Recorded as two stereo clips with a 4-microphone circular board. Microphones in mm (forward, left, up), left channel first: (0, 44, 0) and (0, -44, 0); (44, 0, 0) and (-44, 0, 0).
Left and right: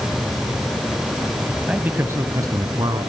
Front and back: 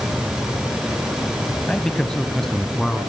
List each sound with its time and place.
1.7 s a man speaking: 55° right, 1.2 m; by 3.1 s 85° right, 1.9 m